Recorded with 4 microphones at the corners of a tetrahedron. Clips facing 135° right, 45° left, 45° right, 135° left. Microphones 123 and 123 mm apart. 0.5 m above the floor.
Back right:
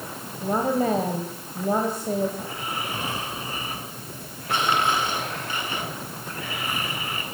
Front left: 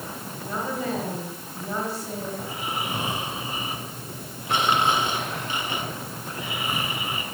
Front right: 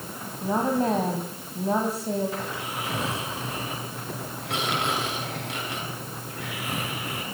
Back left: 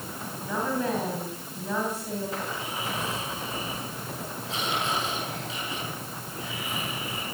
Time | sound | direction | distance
0.4 | a woman speaking | 95° right | 3 m
2.4 | snoring | 25° right | 7 m